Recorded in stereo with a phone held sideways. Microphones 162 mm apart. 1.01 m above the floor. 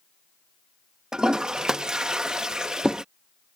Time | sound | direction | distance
1.1 | a toilet flushing | 5° right (ahead or behind) | ?